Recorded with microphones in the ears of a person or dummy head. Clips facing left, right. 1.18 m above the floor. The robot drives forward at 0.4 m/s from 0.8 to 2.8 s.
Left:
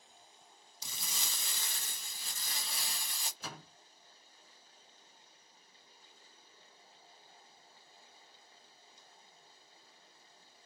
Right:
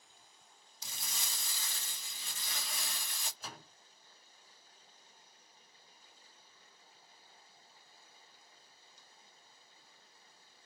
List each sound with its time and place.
0.8 s crumpling: 85° left, 0.5 m; by 3.3 s 35° left (ahead or behind), 1.0 m
3.4 s a door slam: 60° left (ahead or behind), 1.1 m